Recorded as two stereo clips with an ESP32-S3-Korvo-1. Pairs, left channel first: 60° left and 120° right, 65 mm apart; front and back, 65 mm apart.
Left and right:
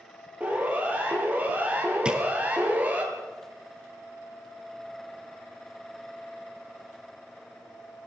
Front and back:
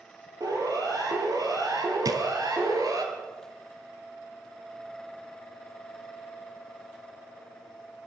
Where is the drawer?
165° left, 2.5 m.